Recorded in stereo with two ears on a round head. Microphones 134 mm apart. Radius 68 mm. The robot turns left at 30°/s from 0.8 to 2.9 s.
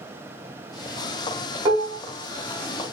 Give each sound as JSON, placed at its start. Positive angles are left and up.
{"t": 1.6, "sound": "dishes clattering", "side_deg": -25, "distance_m": 1.0}